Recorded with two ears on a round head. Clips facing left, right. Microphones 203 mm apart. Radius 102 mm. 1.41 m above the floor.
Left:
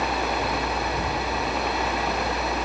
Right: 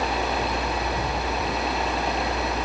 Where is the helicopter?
25° right (ahead or behind).